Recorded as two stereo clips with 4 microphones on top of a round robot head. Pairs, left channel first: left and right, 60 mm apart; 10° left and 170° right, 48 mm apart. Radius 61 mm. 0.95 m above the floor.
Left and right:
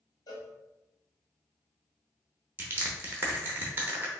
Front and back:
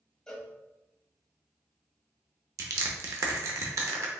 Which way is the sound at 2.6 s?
150° right.